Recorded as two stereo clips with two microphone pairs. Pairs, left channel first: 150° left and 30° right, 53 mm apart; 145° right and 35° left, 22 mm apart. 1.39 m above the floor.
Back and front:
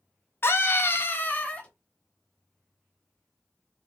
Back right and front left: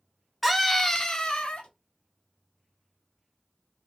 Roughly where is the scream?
Behind left.